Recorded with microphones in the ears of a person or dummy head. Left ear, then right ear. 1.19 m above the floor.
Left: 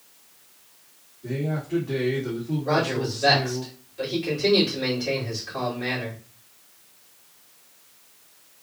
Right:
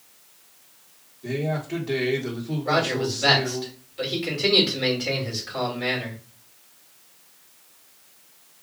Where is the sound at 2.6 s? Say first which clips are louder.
Right 1 dB; 25° right (ahead or behind), 2.5 m.